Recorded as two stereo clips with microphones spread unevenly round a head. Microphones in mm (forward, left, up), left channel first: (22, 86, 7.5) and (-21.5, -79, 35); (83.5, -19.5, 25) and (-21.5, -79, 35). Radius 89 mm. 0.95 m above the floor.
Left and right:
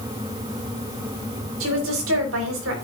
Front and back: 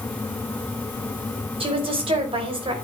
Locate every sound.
1.6 s a woman speaking: 110° right, 3.5 m